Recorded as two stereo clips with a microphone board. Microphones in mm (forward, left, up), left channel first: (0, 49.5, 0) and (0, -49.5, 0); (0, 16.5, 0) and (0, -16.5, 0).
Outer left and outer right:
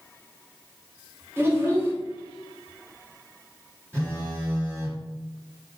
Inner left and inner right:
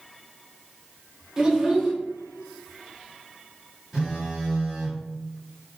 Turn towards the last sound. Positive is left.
turn(degrees=-25)  # may be behind; listen again after turning